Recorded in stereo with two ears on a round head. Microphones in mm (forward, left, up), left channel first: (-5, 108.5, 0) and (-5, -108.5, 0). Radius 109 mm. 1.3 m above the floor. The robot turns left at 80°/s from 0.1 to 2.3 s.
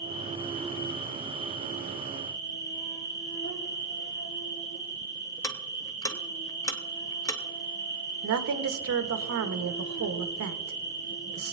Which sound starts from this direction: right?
A woman speaking, at 8.2 s.